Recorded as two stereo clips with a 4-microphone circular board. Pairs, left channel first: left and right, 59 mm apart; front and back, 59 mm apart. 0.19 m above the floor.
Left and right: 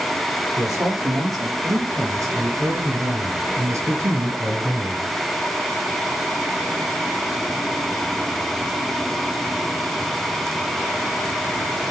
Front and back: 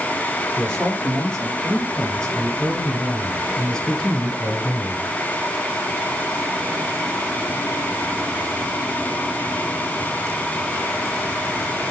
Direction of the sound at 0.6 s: 75° right.